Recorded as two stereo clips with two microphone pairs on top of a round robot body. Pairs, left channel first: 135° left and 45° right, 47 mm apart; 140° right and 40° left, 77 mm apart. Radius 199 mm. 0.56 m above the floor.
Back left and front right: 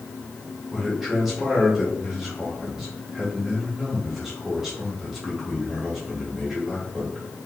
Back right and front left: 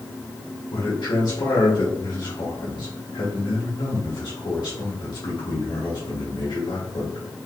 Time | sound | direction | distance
0.7 | a man speaking | 130° right | 2.5 m